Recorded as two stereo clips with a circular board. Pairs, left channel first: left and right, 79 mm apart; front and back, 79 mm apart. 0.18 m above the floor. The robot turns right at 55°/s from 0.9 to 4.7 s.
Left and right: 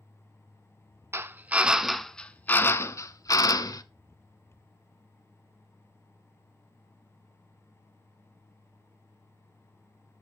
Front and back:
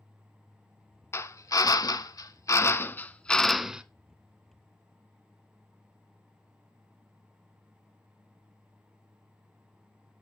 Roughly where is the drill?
Ahead right.